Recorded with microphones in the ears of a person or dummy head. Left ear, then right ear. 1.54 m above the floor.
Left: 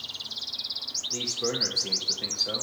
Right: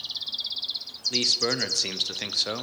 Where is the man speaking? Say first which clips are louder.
Right 7 dB; 65° right (ahead or behind), 0.6 m.